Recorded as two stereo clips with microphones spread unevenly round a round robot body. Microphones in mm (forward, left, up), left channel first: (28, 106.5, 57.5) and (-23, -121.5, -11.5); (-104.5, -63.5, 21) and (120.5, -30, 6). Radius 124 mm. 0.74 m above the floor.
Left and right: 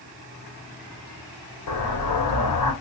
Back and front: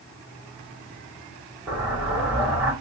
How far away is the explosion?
About 1.5 m.